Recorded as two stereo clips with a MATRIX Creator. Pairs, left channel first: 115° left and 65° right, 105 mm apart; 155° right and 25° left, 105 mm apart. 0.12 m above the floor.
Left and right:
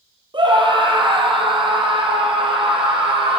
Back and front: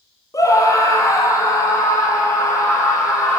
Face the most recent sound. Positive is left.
turn(degrees=-100)